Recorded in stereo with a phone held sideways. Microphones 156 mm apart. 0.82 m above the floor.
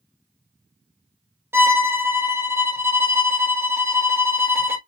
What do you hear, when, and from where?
1.5 s a violin: 15° right (ahead or behind), 0.6 m